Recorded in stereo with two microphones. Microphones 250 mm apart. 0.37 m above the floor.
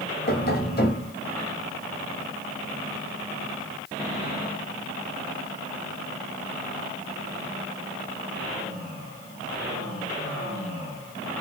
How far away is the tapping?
About 0.7 m.